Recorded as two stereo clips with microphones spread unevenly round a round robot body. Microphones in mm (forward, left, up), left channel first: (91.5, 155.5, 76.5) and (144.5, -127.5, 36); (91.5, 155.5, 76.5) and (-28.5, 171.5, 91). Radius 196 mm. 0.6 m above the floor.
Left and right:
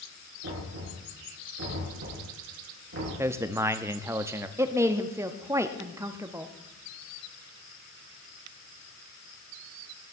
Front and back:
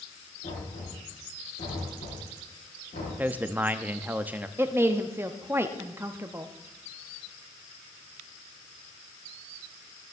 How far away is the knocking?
About 5.5 m.